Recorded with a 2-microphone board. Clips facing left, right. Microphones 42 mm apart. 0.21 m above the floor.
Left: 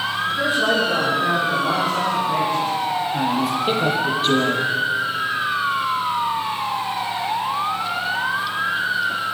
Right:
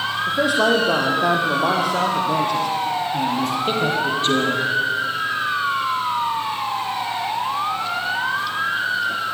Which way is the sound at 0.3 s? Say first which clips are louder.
Right 3 dB; 80° right.